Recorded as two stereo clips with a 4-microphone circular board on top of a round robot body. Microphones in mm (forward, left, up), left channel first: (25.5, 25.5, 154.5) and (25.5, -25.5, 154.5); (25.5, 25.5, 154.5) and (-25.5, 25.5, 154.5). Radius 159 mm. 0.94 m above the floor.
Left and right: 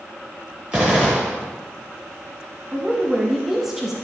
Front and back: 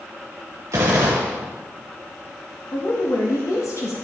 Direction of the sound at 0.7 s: 165° right.